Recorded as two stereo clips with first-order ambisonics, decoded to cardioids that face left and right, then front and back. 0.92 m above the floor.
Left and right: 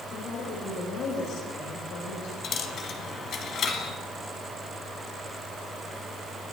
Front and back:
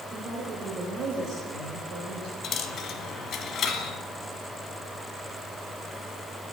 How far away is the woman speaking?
About 4 m.